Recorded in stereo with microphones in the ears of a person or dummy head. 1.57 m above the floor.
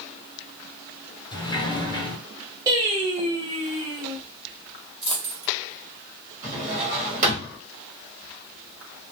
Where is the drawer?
35° right (ahead or behind), 1.4 m.